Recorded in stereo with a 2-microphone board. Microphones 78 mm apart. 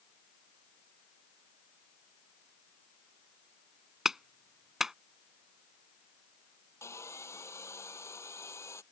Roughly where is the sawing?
Left.